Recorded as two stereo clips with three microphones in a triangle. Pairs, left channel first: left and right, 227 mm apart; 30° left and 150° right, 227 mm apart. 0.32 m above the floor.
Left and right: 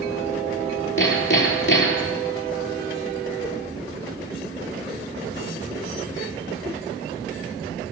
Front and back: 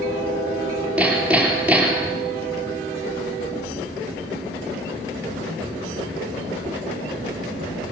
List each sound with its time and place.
1.0 s hammering: 125° left, 4 m